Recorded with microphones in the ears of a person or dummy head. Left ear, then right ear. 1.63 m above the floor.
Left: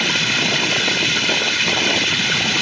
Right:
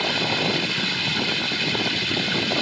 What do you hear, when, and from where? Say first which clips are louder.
0.0 s running water: left 5 dB; 30° left (ahead or behind)